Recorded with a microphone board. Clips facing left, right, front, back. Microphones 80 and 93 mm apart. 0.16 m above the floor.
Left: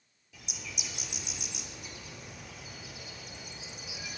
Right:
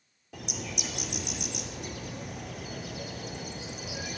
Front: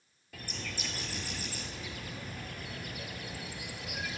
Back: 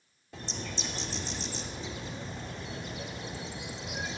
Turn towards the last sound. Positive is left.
turn(degrees=-115)